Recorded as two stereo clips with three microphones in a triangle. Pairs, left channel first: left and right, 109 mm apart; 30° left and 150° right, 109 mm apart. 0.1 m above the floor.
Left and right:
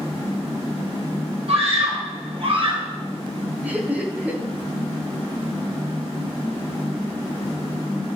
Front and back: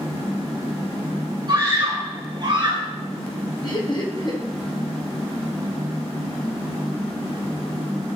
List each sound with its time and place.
1.5 s a scream: 105° right, 3 m; by 2.9 s 115° right, 2 m
3.6 s laughter: 15° right, 4.5 m